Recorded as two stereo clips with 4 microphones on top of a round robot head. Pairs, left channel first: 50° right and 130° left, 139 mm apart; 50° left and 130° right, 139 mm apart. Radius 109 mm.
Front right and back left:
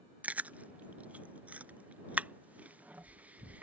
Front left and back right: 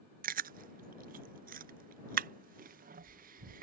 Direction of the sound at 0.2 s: 150° right.